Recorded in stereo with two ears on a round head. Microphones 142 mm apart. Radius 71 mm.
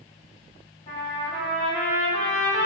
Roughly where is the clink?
I don't hear a clink.